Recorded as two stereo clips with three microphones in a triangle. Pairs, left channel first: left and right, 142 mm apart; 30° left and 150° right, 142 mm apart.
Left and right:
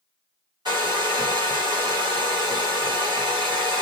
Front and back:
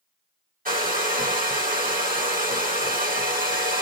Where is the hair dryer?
150° right, 1.5 m.